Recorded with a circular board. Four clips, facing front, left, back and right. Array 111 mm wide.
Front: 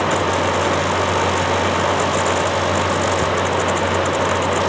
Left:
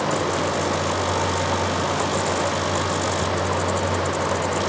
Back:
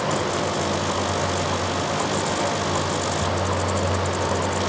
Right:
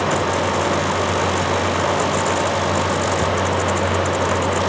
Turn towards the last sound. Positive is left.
No sound to turn to.